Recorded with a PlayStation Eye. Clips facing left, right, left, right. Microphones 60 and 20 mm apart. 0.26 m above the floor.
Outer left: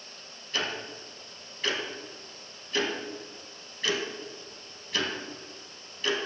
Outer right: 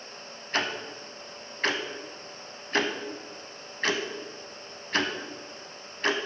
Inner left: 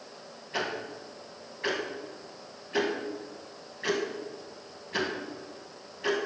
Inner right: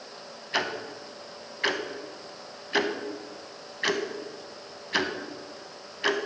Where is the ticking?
50° right (ahead or behind), 0.7 m.